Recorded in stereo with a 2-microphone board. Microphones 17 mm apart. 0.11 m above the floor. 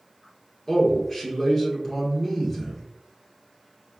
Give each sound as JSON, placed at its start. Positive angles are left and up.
{"t": 0.7, "sound": "a man speaking", "side_deg": 20, "distance_m": 1.7}